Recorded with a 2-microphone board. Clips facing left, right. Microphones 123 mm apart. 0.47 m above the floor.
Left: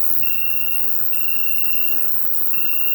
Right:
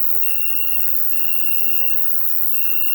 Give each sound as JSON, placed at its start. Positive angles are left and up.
{"t": 0.0, "sound": "an insect", "side_deg": 50, "distance_m": 0.8}